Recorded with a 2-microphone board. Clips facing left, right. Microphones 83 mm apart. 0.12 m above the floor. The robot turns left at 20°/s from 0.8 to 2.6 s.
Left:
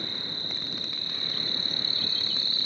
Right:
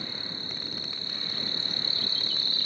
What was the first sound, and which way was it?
An insect, 70° left.